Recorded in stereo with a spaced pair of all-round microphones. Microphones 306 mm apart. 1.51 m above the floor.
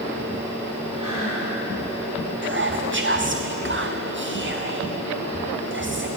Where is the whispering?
40° right (ahead or behind), 0.6 m.